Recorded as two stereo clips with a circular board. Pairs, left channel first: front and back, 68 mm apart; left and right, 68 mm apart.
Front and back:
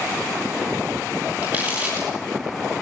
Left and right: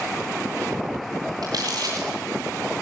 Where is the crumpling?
115° right, 8.5 m.